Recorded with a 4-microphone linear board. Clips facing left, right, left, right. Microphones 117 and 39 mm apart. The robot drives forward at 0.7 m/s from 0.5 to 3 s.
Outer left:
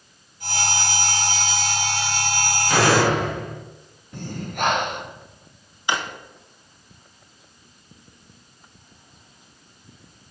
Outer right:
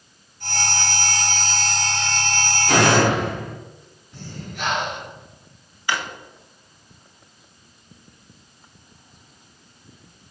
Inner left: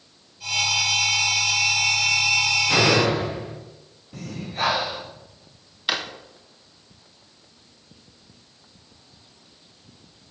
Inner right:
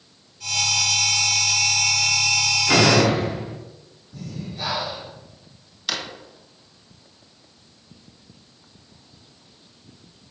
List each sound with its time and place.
2.7 s a door slam: 65° right (ahead or behind), 3 m; by 3.6 s 60° right (ahead or behind), 3 m
4.1 s breathing: 55° left (ahead or behind), 1.2 m
5.9 s a drawer: 20° left (ahead or behind), 1.0 m